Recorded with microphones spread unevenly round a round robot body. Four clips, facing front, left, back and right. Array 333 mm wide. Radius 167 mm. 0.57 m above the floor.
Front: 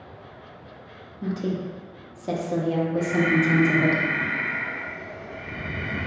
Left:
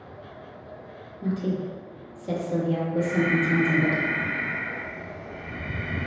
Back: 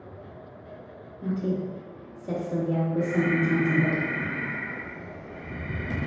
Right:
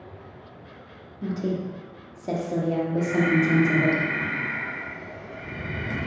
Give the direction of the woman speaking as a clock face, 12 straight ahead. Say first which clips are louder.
Even, even; 1 o'clock.